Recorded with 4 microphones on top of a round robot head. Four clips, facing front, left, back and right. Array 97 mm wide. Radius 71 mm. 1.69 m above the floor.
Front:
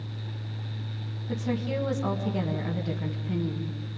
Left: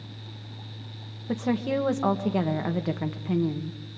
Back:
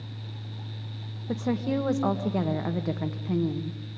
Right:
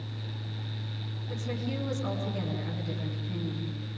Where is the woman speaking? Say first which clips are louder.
Left 9 dB, back 3 dB; 130° left, 1.7 m.